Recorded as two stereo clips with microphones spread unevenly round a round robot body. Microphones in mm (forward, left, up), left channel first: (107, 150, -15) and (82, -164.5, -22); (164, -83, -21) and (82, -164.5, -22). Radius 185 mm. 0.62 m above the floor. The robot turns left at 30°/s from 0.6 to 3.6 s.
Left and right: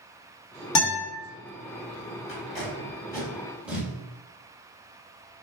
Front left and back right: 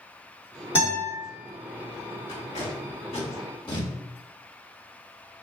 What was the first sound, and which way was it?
A guitar, 100° left.